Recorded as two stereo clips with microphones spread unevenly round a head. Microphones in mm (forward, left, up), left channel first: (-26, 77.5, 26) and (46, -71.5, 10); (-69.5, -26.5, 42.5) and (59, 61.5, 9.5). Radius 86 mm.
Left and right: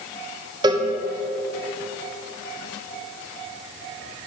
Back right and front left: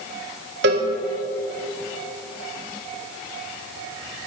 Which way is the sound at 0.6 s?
5° left.